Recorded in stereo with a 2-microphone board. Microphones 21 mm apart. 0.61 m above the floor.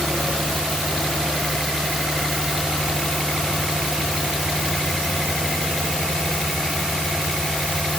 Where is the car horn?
No car horn in this recording.